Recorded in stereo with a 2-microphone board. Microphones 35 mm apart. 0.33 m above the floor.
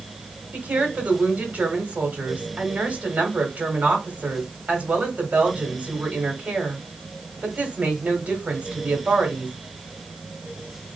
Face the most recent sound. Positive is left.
turn(degrees=-45)  # may be behind; listen again after turning